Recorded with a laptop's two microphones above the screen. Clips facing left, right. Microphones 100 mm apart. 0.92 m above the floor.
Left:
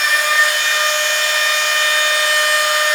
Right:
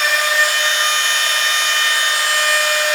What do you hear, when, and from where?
0.0 s a machine running: 50° right (ahead or behind), 1.2 m